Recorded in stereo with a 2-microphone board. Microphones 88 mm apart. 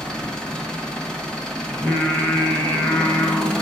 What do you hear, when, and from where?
0.0 s an engine running: 10° left (ahead or behind), 1.4 m
1.7 s singing: 20° left (ahead or behind), 1.3 m